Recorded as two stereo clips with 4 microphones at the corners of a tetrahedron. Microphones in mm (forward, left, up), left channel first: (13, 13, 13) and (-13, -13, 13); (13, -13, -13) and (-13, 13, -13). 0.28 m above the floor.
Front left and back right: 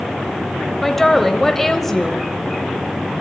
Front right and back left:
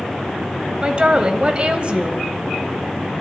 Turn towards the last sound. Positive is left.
turn(degrees=125)